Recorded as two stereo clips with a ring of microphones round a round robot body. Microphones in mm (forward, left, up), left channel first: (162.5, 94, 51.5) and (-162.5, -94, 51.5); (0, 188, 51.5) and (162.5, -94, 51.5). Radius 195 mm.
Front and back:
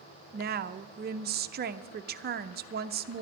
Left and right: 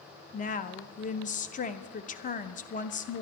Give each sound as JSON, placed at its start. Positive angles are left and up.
{"t": 0.3, "sound": "a woman speaking", "azimuth_deg": 165, "distance_m": 0.7}